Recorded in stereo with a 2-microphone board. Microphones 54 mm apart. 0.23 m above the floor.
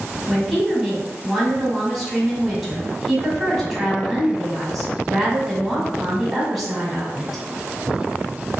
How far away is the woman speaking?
About 1.4 m.